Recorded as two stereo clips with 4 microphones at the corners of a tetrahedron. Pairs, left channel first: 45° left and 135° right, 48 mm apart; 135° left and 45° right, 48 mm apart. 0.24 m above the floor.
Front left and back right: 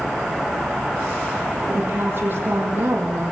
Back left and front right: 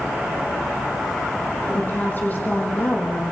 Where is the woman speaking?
170° right, 8 m.